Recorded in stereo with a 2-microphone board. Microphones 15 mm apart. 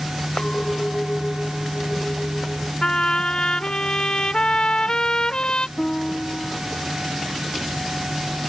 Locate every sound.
0.4 s a clink: 65° left (ahead or behind)
2.8 s a trumpet: 65° left (ahead or behind)
5.8 s a piano: 70° left (ahead or behind)